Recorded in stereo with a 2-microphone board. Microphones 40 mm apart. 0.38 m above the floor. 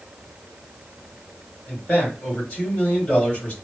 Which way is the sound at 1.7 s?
30° left (ahead or behind).